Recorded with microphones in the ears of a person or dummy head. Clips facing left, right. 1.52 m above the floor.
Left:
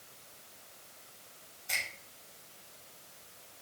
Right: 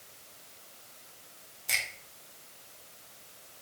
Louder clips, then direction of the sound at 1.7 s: Right 2 dB; 75° right (ahead or behind).